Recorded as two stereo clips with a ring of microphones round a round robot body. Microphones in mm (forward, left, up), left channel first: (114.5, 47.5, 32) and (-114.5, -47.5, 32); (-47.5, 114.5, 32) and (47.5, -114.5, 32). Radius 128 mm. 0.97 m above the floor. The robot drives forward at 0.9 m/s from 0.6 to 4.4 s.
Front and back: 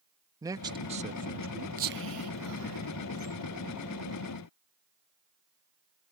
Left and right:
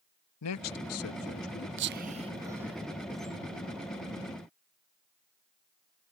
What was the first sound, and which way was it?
A man speaking, 125° left.